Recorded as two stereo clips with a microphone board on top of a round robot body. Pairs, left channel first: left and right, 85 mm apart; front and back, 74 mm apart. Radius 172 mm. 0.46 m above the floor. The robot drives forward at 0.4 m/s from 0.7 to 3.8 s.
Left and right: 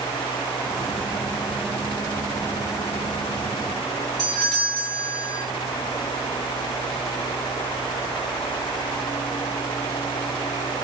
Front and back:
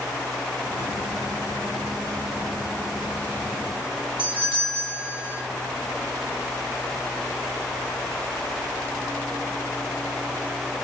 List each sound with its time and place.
4.2 s a doorbell: 175° left, 5.5 m